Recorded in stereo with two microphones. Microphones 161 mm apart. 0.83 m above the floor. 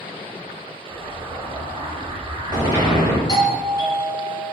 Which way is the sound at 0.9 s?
25° right (ahead or behind).